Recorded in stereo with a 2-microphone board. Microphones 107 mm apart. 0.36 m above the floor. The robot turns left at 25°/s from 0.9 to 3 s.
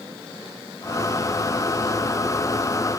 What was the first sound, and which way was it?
Only background noise.